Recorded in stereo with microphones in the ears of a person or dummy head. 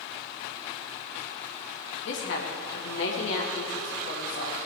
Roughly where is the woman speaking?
Left.